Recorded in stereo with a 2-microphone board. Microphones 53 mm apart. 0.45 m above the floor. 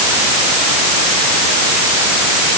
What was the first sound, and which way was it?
Only background noise.